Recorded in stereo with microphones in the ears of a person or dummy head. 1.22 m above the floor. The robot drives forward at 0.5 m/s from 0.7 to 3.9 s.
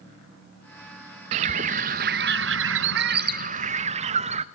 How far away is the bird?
About 0.9 m.